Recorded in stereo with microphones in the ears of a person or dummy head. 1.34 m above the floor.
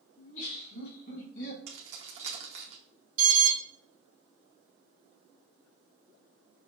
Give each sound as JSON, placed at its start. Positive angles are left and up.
{"t": 0.2, "sound": "laughter", "side_deg": 70, "distance_m": 2.0}
{"t": 1.7, "sound": "keys jangling", "side_deg": -35, "distance_m": 0.7}
{"t": 3.2, "sound": "an alarm", "side_deg": -50, "distance_m": 1.0}